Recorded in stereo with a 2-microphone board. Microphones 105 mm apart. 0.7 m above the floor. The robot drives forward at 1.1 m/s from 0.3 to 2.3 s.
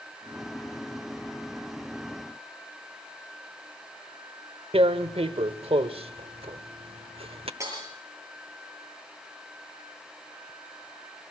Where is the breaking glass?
30° right (ahead or behind), 8 m.